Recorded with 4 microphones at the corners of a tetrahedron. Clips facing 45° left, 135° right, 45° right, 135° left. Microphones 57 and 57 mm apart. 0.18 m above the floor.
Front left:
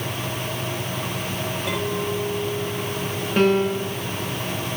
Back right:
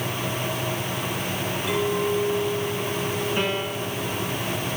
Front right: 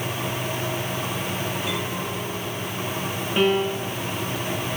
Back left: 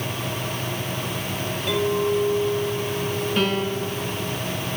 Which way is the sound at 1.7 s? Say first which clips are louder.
Back right 3 dB, back left 7 dB; 35° left.